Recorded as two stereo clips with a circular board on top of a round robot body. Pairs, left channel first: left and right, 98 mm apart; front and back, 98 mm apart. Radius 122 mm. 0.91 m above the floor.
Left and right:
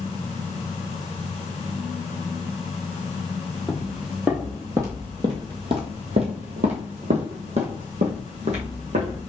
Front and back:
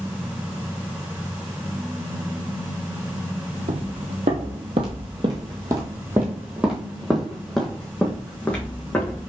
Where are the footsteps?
Straight behind, 1.5 m; by 9.2 s 75° right, 2.5 m.